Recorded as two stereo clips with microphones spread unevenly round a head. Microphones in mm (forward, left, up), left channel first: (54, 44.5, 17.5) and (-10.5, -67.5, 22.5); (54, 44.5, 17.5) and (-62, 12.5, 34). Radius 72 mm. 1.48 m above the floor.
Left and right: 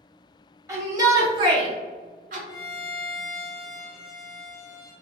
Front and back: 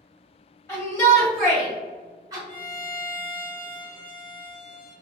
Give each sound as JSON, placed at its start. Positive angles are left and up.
{"t": 0.7, "sound": "a shout", "azimuth_deg": -55, "distance_m": 1.8}
{"t": 2.5, "sound": "a violin", "azimuth_deg": 5, "distance_m": 1.0}